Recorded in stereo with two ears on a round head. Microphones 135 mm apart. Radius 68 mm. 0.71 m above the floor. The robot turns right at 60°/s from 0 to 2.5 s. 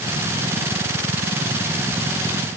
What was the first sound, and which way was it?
Only background noise.